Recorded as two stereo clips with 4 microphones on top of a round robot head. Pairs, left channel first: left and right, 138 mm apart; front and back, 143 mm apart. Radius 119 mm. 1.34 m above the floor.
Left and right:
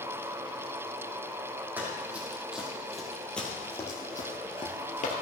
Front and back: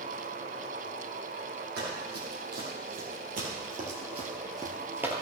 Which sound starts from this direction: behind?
Running footsteps, at 1.8 s.